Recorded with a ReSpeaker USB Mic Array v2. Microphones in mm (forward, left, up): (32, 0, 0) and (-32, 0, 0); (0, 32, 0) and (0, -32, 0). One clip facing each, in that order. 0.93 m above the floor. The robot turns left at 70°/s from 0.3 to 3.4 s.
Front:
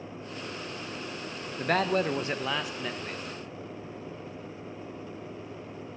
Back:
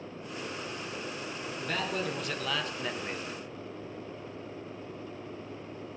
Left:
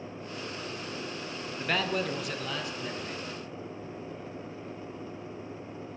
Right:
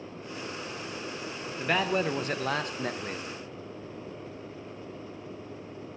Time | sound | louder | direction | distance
1.6 | a man speaking | front 8 dB, right 3 dB | 5° right | 0.5 m